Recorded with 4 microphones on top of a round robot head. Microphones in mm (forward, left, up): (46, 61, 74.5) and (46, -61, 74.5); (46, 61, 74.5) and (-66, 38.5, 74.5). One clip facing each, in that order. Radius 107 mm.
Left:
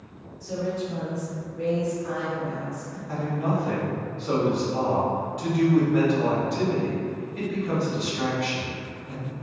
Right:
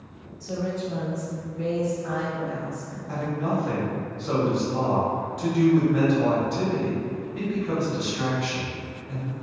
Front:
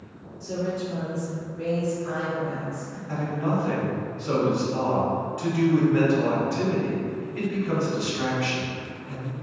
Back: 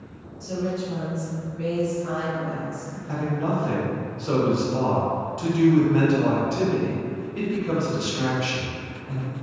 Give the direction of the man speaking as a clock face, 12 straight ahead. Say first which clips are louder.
Even, back 1 dB; 6 o'clock.